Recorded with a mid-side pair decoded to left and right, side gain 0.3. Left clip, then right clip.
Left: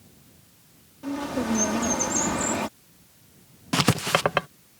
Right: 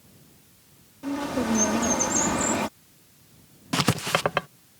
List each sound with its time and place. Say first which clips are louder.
1.0 s a bird: right 1 dB; 15° right
3.7 s writing: left 2 dB; 15° left